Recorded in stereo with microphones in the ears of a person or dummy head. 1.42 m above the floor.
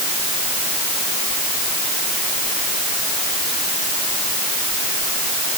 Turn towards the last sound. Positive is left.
No sound to turn to.